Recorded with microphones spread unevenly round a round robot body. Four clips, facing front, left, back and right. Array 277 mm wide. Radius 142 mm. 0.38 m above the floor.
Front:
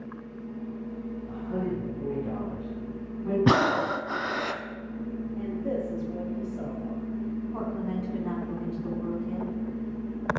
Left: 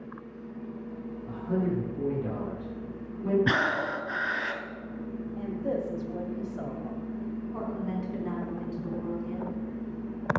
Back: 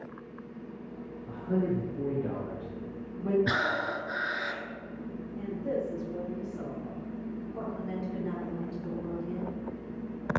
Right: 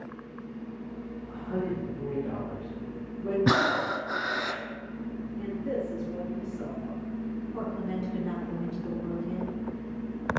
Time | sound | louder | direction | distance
1.3 | a man speaking | left 3 dB, back 3 dB | 140° left | 5.5 m
3.5 | breathing | right 2 dB, front 7 dB | 15° right | 0.6 m
5.4 | a woman speaking | left 1 dB, front 1 dB | 60° left | 2.5 m
7.5 | a woman speaking | even, front 4 dB | 30° left | 3.5 m